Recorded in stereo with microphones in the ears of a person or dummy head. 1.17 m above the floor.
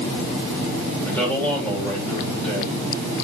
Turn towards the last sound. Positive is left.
turn(degrees=10)  # may be behind; listen again after turning